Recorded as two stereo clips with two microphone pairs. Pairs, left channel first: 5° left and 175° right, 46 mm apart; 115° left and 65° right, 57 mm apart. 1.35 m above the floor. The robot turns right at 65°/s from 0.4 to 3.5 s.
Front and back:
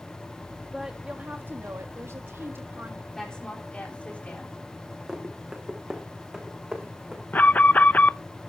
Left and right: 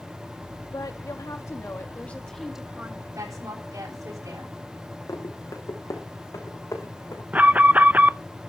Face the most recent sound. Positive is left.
turn(degrees=-20)